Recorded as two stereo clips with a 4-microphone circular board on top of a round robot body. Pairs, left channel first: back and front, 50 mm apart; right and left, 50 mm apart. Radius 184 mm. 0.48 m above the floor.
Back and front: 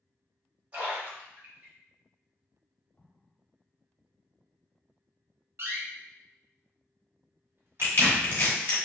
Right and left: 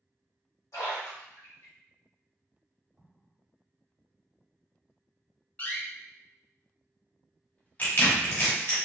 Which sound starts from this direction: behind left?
An explosion, at 3.0 s.